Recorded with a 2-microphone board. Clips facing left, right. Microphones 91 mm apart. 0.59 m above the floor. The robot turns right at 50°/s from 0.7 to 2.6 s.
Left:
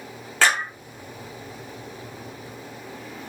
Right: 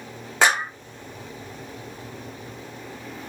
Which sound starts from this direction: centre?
A clap, at 0.4 s.